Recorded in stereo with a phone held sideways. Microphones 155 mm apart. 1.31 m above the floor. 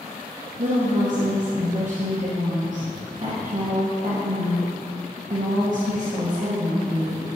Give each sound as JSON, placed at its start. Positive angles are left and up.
{"t": 0.6, "sound": "a woman speaking", "side_deg": -55, "distance_m": 0.8}